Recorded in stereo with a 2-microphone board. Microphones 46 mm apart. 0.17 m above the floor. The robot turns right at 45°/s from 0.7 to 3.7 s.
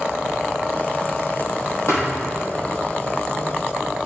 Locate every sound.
1.9 s a thud: 65° left (ahead or behind), 2.5 m; by 2.1 s 75° left (ahead or behind), 2.5 m